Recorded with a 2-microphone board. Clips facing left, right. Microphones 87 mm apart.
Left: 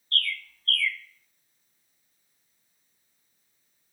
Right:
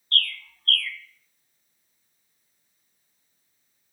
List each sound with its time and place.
0.1 s a bird: 55° right (ahead or behind), 1.1 m